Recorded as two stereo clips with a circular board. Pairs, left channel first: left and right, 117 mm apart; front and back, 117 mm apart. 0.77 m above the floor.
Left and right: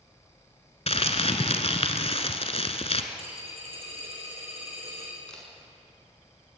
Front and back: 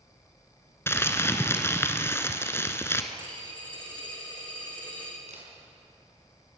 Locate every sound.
0.9 s crumpling: 65° left, 1.4 m
3.1 s a dropped coin: 50° right, 6.5 m
5.3 s a camera shutter: 170° left, 6 m